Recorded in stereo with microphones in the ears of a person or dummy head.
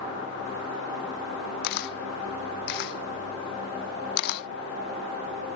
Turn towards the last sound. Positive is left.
turn(degrees=55)  # may be behind; listen again after turning